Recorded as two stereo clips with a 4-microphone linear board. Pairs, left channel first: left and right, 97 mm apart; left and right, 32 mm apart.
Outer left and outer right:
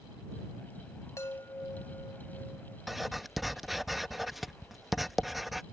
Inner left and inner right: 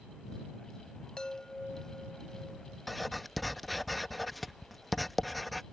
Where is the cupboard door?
I don't hear a cupboard door.